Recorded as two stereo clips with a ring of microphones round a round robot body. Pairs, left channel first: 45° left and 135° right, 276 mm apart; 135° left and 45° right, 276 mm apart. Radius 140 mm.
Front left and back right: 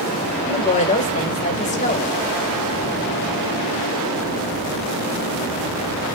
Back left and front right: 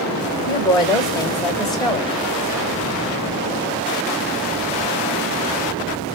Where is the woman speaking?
75° left, 1.3 m.